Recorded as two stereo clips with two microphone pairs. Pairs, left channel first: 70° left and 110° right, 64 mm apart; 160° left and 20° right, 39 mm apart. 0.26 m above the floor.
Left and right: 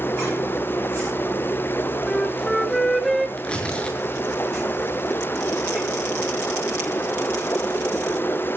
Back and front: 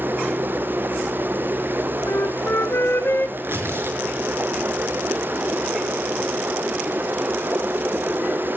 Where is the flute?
160° left, 1.7 m.